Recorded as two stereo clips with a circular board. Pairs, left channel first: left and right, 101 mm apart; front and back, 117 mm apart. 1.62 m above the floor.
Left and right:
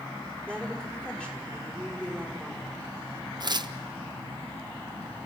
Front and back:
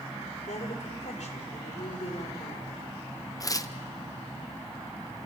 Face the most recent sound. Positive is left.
turn(degrees=-55)